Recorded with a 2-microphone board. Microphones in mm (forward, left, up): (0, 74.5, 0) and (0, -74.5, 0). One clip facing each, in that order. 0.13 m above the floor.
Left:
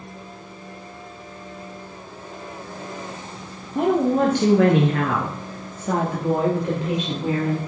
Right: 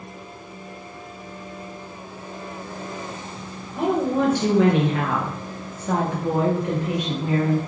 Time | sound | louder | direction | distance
3.8 | a woman speaking | left 3 dB | 55° left (ahead or behind) | 2 m